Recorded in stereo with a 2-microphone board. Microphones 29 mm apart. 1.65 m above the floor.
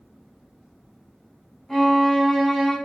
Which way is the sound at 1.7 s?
10° left (ahead or behind).